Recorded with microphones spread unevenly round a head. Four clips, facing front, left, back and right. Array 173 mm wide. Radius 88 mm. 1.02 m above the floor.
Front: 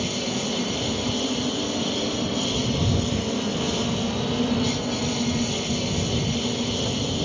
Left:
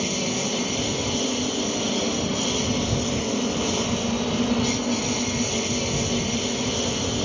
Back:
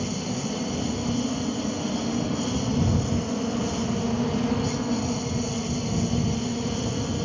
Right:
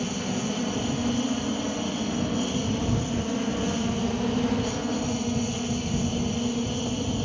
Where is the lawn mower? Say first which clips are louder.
Left 2 dB, front 2 dB; 55° left.